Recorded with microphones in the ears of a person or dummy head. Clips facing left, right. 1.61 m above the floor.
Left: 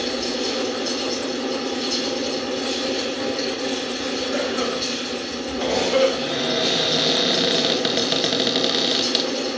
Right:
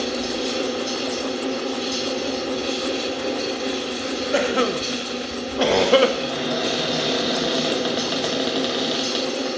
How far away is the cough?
About 0.7 m.